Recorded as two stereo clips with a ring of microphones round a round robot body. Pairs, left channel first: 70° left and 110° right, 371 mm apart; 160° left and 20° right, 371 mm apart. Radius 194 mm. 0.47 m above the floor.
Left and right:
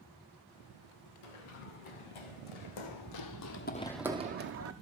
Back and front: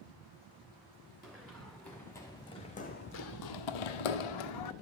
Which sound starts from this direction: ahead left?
Running footsteps, at 1.2 s.